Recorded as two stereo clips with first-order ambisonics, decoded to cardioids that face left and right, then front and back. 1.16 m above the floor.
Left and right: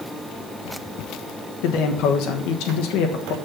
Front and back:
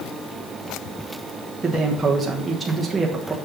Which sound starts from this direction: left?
A man speaking, at 1.6 s.